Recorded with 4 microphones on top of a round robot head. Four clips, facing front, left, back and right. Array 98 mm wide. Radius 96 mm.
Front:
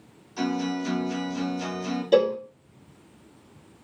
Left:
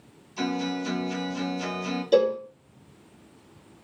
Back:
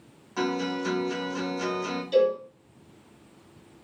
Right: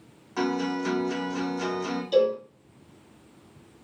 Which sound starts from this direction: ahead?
A cowbell, at 2.1 s.